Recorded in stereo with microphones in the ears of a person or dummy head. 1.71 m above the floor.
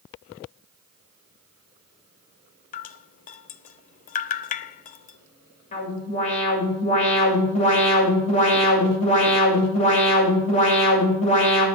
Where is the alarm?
40° left (ahead or behind), 7 m.